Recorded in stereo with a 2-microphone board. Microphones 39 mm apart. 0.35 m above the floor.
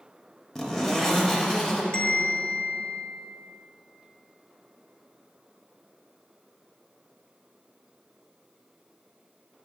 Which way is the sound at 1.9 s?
35° left (ahead or behind).